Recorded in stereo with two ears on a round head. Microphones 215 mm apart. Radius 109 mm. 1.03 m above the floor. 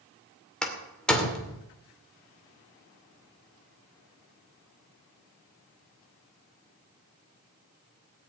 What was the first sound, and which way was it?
A door slam, 5° left (ahead or behind).